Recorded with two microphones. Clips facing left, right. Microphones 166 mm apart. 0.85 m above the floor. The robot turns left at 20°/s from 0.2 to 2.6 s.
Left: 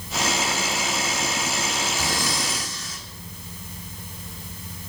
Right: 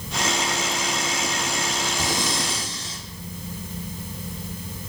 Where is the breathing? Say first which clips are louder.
Right 1 dB; 20° right (ahead or behind), 1.7 m; by 3.0 s 30° right (ahead or behind), 1.7 m.